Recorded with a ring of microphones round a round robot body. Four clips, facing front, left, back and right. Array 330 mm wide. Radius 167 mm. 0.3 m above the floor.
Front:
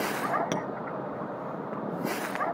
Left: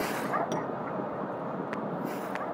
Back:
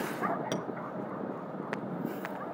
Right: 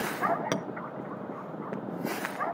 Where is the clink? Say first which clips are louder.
Even, front 4 dB; 70° right, 0.6 m.